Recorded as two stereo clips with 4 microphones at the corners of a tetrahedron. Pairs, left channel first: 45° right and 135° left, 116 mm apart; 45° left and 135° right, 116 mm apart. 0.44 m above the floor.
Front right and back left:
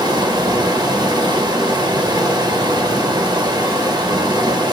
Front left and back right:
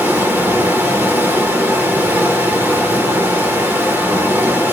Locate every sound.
0.0 s running water: 160° left, 1.1 m